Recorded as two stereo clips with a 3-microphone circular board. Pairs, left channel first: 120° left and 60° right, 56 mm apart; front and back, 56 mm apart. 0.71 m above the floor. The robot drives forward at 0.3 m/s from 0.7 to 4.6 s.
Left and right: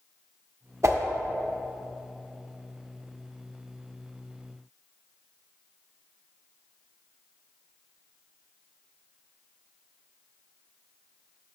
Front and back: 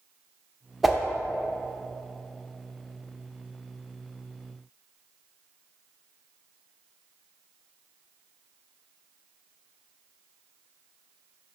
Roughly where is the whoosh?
Right.